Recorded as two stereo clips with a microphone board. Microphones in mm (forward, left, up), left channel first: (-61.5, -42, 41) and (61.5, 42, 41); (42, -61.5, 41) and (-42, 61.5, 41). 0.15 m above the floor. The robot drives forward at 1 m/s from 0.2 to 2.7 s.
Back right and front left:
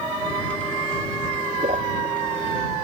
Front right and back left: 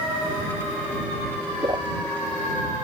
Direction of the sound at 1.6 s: 65° left.